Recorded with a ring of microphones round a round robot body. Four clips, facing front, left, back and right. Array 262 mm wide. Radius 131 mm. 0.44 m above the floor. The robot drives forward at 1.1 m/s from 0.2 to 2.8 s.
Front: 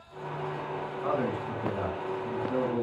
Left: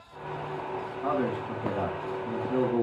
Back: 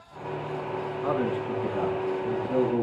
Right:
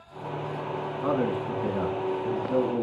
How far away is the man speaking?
About 5 m.